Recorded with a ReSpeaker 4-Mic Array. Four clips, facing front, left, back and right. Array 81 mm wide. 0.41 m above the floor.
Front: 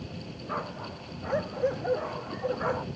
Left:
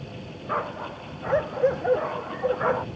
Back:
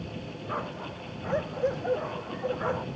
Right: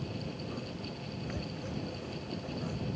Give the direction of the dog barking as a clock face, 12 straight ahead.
9 o'clock.